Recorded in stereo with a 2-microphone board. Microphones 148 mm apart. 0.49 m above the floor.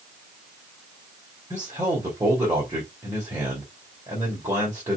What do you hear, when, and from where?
1.5 s a man speaking: 20° right (ahead or behind), 2 m